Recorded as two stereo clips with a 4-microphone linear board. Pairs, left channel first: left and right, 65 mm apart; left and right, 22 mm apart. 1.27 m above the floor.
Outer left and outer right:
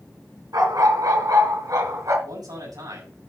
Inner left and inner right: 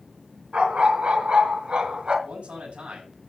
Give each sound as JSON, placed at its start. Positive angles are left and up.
{"t": 0.5, "sound": "a dog barking", "side_deg": -75, "distance_m": 4.0}
{"t": 2.2, "sound": "a man speaking", "side_deg": -80, "distance_m": 7.0}